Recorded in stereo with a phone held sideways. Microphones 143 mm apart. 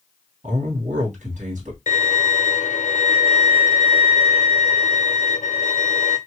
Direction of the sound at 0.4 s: 65° right (ahead or behind).